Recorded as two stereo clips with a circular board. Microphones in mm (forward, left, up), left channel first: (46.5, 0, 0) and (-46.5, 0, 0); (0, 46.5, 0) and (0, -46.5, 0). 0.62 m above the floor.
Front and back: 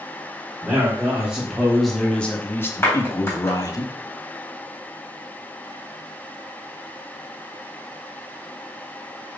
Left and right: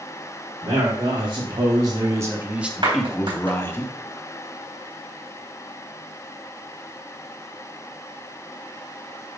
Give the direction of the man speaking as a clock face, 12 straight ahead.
4 o'clock.